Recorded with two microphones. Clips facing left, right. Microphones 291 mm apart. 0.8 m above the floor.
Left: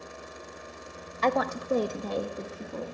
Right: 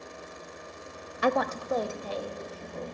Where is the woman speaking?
10° right (ahead or behind), 0.6 m; by 2.9 s 70° left (ahead or behind), 1.3 m.